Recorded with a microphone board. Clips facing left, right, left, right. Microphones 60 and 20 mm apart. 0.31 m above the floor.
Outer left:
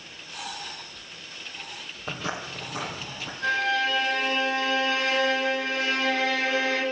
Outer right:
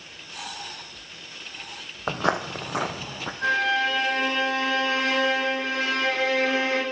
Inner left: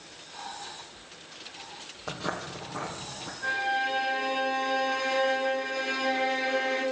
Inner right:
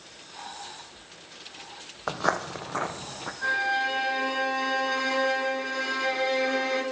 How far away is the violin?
About 9.5 m.